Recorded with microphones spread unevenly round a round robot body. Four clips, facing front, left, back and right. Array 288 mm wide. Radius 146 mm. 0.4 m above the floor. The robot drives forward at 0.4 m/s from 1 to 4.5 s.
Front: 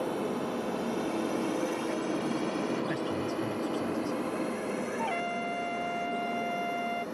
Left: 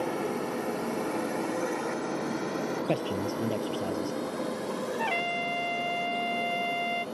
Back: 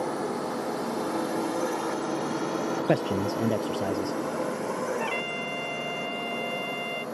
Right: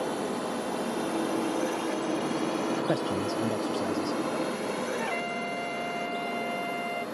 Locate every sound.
0.0 s a drone: 130° left; by 7.2 s 175° right
2.9 s a man speaking: straight behind
5.0 s a trumpet: 100° left